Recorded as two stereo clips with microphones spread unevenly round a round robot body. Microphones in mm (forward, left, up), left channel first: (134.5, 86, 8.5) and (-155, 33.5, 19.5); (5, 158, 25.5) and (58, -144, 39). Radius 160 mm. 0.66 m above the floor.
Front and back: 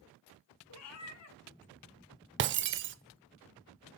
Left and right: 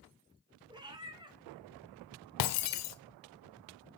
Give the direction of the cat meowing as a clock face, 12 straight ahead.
12 o'clock.